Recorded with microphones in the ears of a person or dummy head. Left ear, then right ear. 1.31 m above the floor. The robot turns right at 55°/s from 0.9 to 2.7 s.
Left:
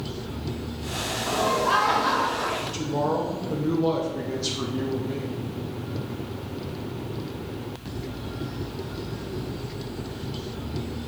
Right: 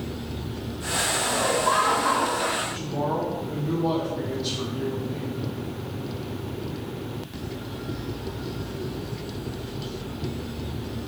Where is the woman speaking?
80° left, 0.6 m; by 5.4 s 85° left, 0.6 m.